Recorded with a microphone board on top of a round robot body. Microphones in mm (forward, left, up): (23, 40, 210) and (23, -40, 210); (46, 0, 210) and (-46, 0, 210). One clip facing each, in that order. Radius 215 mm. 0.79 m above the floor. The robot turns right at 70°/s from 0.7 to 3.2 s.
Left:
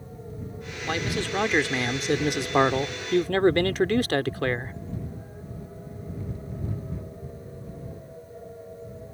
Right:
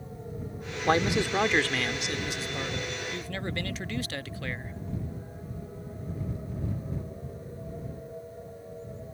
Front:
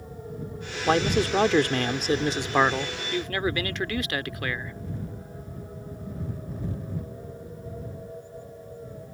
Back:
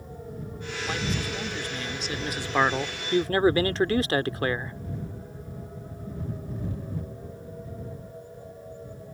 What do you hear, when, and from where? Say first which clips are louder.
0.9 s a man speaking: right 4 dB, front 10 dB; 40° right; by 4.8 s 125° left